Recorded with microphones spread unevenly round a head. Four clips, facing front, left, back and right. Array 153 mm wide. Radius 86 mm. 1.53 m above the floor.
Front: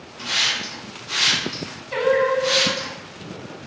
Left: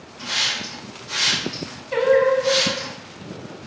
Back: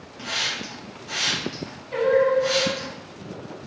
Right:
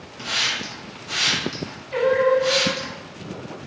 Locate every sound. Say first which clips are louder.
0.2 s a hiss: right 1 dB, front 3 dB; 140° right, 1.0 m
1.9 s singing: left 2 dB, even; 50° left, 0.7 m